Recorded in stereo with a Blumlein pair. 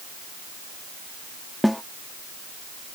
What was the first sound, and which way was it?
A snare drum, straight ahead.